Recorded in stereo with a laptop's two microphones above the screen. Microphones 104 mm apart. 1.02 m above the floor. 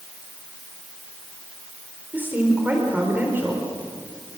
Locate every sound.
2.1 s a woman speaking: 15° right (ahead or behind), 4.5 m